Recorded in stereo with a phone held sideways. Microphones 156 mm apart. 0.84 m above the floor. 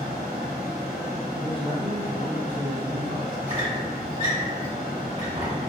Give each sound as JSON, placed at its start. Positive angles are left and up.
{"t": 0.0, "sound": "a fan", "side_deg": -70, "distance_m": 0.9}
{"t": 1.3, "sound": "a man speaking", "side_deg": -30, "distance_m": 0.9}
{"t": 3.5, "sound": "a squeak", "side_deg": -50, "distance_m": 1.3}